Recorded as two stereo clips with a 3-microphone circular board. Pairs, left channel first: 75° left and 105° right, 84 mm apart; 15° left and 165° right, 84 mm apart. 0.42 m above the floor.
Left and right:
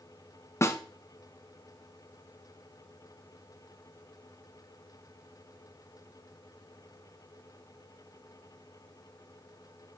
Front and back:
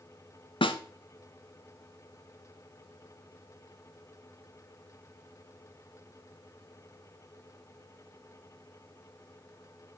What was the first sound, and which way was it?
A snare drum, 20° left.